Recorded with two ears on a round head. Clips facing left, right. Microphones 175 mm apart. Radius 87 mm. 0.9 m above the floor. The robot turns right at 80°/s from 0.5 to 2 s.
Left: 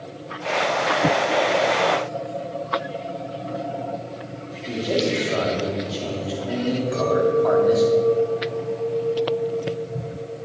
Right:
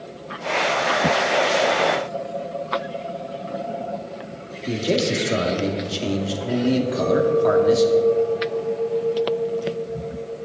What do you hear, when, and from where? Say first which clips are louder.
4.7 s a man speaking: right 1 dB; 35° right (ahead or behind), 2 m
6.9 s a clink: right 1 dB; 55° left (ahead or behind), 4.5 m